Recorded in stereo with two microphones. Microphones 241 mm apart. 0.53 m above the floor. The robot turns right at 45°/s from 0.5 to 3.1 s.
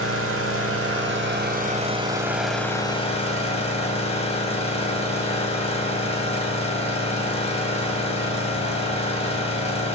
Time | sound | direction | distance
0.0 | an engine running | 90° right | 3 m